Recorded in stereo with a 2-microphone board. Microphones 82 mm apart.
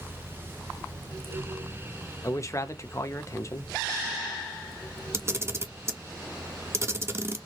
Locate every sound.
2.2 s a man speaking: 40° left (ahead or behind), 0.7 m
5.1 s a camera shutter: 30° right (ahead or behind), 0.7 m